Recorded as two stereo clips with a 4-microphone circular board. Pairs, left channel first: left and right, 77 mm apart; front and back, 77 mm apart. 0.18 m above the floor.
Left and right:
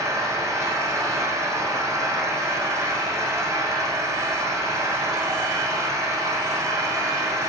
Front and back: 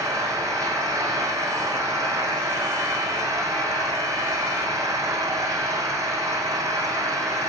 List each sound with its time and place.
0.0 s an engine running: 135° right, 6.5 m